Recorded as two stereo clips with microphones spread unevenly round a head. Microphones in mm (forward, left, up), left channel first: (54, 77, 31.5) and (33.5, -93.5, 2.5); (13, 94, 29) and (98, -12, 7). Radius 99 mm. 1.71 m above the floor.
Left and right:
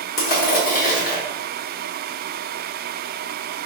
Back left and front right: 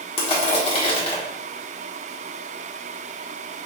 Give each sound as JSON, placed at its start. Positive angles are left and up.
{"t": 0.2, "sound": "crushing", "azimuth_deg": 105, "distance_m": 1.4}